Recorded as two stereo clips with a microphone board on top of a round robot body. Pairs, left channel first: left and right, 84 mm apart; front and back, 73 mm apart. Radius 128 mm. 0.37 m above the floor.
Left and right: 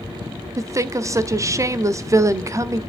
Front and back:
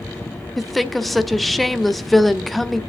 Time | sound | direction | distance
0.6 | a woman speaking | 90° right | 1.1 m